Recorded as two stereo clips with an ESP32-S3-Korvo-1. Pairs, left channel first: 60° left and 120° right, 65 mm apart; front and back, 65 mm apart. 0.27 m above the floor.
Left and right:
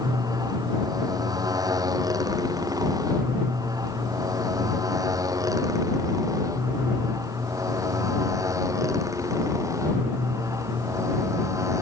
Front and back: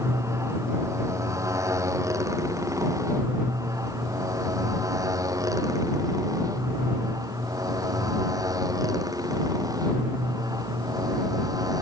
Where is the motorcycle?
140° right; by 11.8 s 160° right.